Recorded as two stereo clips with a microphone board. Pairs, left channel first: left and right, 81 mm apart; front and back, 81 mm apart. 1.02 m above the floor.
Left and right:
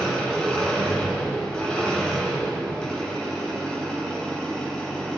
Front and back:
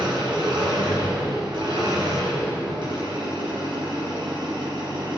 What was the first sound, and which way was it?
An engine running, 170° left.